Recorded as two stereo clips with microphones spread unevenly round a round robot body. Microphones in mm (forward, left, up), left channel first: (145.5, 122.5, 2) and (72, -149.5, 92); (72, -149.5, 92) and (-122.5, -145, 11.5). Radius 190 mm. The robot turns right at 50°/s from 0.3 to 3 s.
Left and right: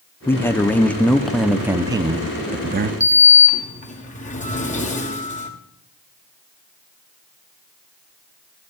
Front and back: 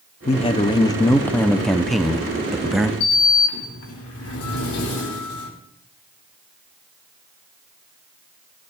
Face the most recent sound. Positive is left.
turn(degrees=20)